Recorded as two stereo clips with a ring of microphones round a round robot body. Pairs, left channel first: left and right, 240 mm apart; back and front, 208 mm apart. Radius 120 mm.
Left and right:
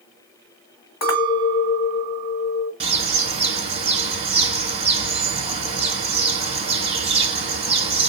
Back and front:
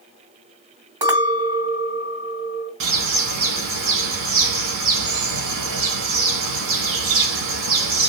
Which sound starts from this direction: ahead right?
A bird, at 2.8 s.